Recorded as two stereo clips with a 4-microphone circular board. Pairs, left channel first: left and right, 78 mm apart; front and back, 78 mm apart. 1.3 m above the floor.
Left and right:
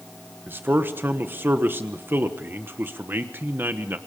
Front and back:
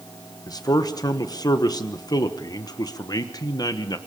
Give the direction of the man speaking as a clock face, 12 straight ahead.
1 o'clock.